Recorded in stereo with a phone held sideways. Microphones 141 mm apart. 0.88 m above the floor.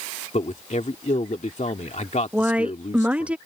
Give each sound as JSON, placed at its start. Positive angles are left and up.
{"t": 0.3, "sound": "a man speaking", "side_deg": 65}
{"t": 2.3, "sound": "a woman speaking", "side_deg": -10}